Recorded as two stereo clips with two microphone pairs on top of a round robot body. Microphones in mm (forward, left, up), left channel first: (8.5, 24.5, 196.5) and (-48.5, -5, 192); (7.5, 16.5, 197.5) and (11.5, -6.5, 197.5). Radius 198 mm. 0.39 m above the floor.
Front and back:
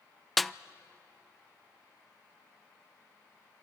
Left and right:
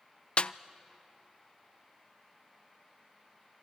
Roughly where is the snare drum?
Behind left.